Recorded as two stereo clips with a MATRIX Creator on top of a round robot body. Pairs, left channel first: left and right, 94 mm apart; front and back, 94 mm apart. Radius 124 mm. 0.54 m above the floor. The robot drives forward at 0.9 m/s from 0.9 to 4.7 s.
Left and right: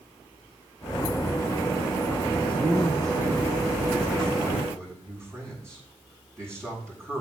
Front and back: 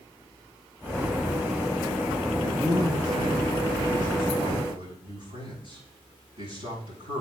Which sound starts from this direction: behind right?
A man speaking, at 2.4 s.